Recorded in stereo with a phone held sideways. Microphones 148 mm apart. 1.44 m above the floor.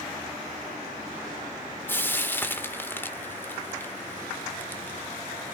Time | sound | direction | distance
1.9 | frying | 15° left (ahead or behind) | 1.4 m